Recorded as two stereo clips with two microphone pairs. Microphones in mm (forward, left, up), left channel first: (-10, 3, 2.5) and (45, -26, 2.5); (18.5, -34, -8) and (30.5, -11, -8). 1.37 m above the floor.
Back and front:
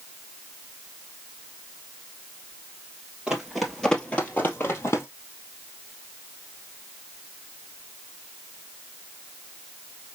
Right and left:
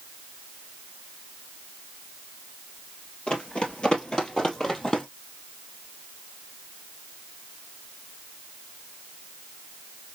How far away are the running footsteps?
About 1.7 m.